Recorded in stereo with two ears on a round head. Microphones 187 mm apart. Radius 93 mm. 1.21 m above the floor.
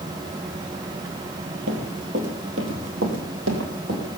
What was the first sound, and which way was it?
Running footsteps, 65° right (ahead or behind).